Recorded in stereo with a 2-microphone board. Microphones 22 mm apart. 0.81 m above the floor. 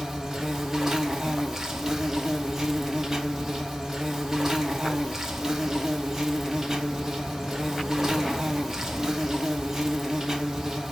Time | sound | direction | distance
0.0 | an insect | 20° right (ahead or behind) | 0.7 m